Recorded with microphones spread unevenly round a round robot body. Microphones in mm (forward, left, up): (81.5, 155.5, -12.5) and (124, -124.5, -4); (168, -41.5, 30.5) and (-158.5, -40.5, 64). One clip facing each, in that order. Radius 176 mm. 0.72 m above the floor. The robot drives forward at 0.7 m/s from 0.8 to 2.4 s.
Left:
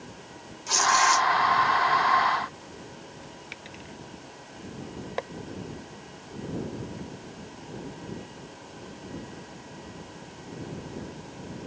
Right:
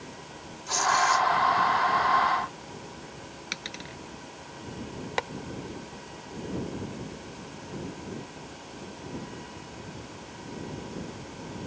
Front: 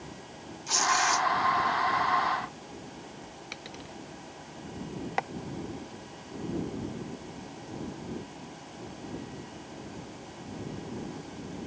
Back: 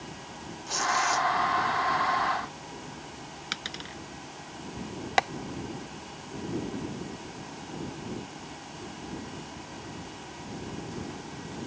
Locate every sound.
0.7 s tearing paper: 60° left; by 1.3 s 75° left
3.5 s a dropped coin: 130° right
5.2 s tapping: 145° right